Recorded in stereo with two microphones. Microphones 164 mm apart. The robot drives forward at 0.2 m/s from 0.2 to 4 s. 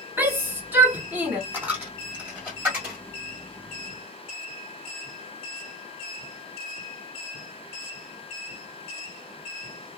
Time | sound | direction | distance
0.2 | a shout | 10° right (ahead or behind) | 1.6 m
1.5 | a dropped coin | 10° right (ahead or behind) | 1.5 m